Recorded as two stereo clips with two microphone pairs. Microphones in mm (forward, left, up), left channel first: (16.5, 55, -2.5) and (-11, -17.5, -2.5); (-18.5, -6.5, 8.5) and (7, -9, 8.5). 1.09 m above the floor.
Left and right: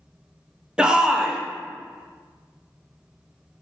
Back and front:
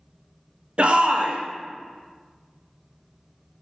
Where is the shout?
30° right, 0.5 m.